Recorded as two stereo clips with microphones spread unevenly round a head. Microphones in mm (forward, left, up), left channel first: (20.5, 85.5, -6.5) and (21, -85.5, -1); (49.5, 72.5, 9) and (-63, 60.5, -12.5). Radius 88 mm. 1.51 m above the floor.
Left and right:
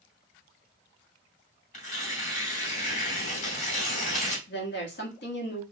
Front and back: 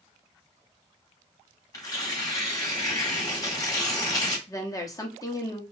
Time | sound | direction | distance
1.7 | tearing paper | 50° left | 2.5 m
4.5 | a woman speaking | 65° left | 1.7 m